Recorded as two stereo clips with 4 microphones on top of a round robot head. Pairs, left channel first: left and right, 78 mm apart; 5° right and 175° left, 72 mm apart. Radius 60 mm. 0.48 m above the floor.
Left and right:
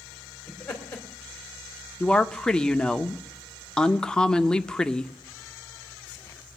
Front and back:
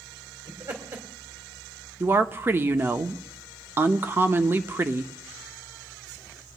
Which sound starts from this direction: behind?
A woman speaking, at 2.0 s.